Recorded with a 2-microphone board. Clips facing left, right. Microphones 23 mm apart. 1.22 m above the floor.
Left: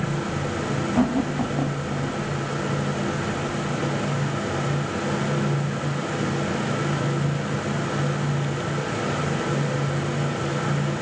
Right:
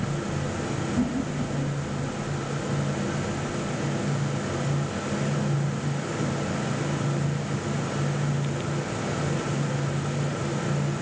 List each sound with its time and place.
0.9 s laughter: 65° left (ahead or behind), 1.9 m